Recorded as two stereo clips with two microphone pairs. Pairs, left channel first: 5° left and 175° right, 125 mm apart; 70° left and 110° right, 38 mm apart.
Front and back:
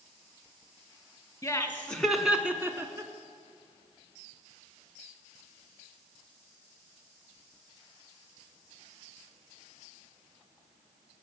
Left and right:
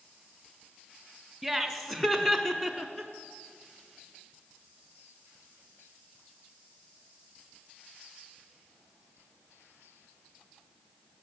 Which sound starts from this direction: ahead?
Laughter, at 1.4 s.